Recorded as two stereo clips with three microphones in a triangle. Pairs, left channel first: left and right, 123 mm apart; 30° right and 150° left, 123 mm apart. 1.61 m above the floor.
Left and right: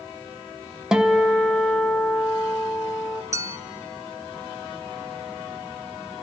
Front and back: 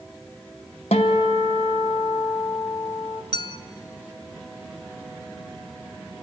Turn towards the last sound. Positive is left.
turn(degrees=-45)